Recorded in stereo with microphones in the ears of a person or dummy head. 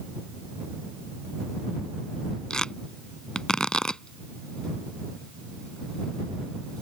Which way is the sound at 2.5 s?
5° left (ahead or behind).